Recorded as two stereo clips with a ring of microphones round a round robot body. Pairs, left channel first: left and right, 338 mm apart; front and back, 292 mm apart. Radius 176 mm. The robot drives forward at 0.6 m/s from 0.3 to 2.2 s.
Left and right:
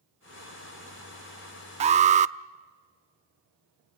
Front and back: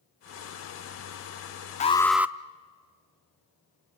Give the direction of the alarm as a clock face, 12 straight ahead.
1 o'clock.